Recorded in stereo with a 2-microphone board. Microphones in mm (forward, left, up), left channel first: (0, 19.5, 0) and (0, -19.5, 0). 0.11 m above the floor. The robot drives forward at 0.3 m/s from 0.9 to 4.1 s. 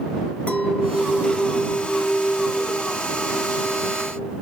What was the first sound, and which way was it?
A clink, 35° left (ahead or behind).